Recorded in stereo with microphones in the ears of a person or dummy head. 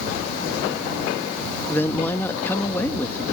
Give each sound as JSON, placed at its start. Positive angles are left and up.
{"t": 1.7, "sound": "a woman speaking", "side_deg": 15}